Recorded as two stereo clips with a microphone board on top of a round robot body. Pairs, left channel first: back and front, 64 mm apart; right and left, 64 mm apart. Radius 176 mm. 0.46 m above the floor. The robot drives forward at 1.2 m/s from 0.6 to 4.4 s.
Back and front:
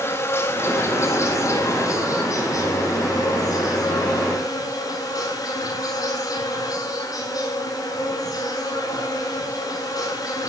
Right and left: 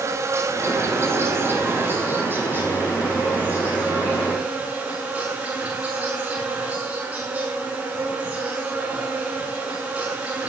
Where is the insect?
130° left, 4 m; by 10.5 s 155° left, 8 m.